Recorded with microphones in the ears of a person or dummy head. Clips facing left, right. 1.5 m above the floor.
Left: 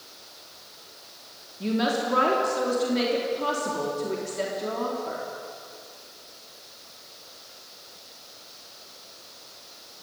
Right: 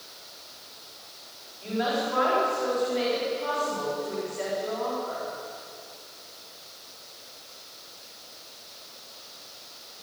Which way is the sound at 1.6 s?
65° left (ahead or behind).